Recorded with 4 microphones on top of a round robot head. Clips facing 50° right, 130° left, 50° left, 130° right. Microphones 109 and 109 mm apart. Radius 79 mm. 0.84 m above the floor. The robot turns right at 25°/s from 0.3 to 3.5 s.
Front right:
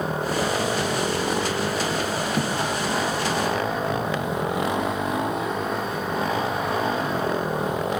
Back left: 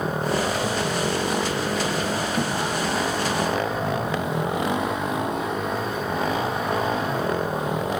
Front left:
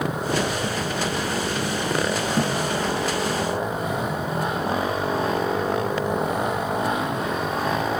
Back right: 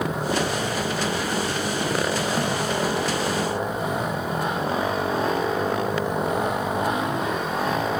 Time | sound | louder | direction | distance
2.4 | a thud | front right 1 dB, front left 2 dB | 10° right | 5.5 m